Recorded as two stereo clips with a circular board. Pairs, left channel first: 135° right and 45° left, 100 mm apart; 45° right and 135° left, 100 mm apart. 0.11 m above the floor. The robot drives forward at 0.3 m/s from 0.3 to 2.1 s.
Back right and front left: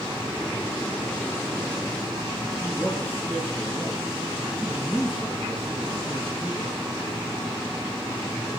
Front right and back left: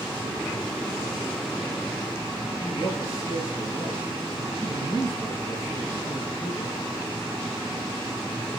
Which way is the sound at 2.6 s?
75° right.